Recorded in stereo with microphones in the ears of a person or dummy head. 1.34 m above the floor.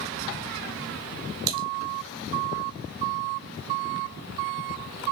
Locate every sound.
1.5 s typing on a keyboard: 45° right (ahead or behind), 2 m